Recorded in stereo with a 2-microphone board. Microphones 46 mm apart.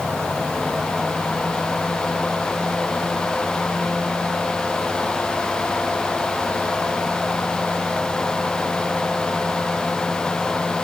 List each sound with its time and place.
Only background noise.